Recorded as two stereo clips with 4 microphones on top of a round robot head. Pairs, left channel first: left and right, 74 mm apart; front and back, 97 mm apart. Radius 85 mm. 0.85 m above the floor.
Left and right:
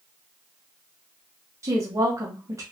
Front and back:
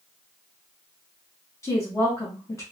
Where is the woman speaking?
55° right, 1.1 m.